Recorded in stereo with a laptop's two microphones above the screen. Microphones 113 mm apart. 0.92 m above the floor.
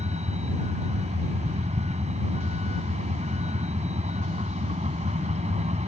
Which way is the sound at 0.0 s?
85° right.